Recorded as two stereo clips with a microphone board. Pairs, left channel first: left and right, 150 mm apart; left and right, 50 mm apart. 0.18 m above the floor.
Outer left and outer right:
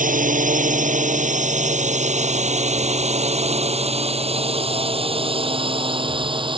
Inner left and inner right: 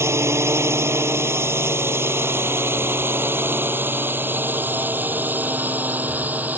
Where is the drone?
65° right (ahead or behind); by 6.6 s 35° right (ahead or behind).